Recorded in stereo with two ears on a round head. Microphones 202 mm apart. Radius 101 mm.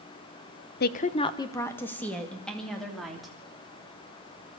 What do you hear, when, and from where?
0.8 s a woman speaking: 45° left (ahead or behind), 0.8 m; by 3.3 s centre (ahead or behind), 4 m